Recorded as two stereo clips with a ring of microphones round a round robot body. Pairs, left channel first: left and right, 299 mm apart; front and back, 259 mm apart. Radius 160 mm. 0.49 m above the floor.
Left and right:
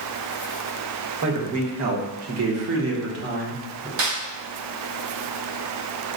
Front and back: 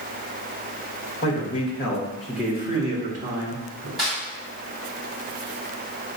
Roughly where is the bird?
I don't hear a bird.